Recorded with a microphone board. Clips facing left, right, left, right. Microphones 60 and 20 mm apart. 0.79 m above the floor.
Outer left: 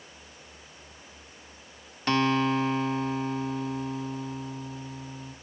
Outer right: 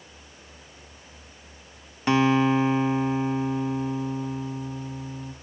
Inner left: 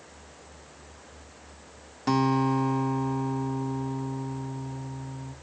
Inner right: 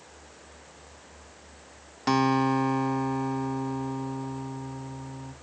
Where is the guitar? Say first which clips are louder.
Outer right 4 dB, inner right 1 dB; 15° right (ahead or behind), 0.7 m.